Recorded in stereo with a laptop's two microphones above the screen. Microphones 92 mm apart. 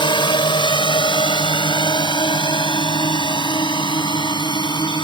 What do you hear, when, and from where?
0.0 s a drone: 65° left (ahead or behind); by 5.0 s 60° left (ahead or behind)